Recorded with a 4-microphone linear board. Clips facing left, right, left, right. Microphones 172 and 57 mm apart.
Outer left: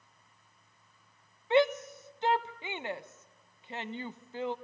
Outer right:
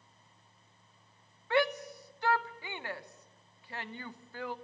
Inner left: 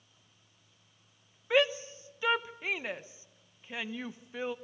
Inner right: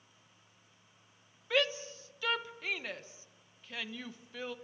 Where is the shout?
20° left (ahead or behind), 1.0 m.